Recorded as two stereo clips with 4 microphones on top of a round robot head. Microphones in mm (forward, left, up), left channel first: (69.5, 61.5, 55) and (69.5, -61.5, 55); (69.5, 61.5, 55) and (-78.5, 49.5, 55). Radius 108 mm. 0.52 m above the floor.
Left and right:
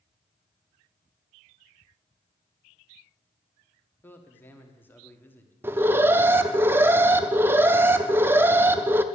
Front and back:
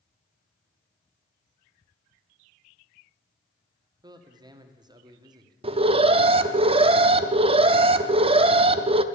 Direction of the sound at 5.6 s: 155° right.